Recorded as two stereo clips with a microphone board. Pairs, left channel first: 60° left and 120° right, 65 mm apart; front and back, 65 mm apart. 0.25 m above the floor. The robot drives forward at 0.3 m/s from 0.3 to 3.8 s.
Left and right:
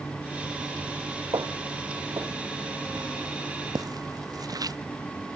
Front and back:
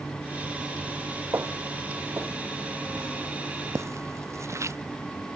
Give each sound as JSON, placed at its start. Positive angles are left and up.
{"t": 1.3, "sound": "footsteps", "azimuth_deg": -130}